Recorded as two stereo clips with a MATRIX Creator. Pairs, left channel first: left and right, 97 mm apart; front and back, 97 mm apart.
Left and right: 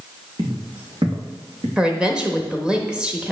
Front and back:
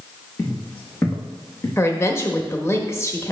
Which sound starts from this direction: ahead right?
Footsteps, at 0.4 s.